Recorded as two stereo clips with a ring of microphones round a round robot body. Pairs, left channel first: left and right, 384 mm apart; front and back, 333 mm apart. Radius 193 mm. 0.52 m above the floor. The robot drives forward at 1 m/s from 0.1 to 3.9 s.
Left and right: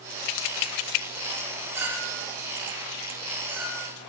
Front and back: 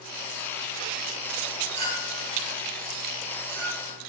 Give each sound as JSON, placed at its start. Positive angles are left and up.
{"t": 1.7, "sound": "a clink", "azimuth_deg": -175, "distance_m": 8.5}